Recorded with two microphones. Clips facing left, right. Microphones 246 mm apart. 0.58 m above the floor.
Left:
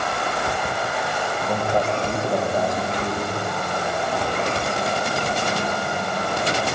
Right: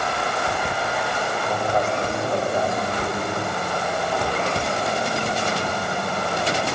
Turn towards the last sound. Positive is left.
turn(degrees=10)  # may be behind; listen again after turning